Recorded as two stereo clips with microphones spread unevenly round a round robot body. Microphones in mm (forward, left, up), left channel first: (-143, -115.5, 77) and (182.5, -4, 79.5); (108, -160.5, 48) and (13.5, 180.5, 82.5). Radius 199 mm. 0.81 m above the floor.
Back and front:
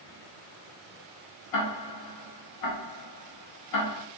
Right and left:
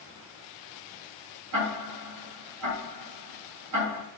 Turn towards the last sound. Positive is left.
turn(degrees=160)